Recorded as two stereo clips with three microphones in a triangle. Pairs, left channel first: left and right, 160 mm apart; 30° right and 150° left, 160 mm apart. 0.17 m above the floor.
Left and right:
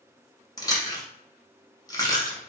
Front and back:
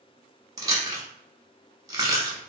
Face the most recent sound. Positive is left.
turn(degrees=115)